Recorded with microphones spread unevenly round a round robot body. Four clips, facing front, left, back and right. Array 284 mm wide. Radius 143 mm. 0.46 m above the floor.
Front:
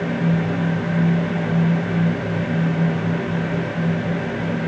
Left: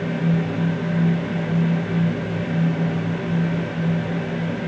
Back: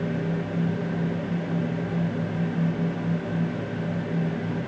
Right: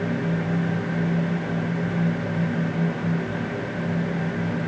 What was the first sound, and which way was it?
Only background noise.